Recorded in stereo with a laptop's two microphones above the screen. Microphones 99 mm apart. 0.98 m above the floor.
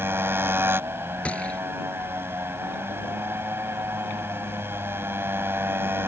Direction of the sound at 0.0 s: 25° right (ahead or behind).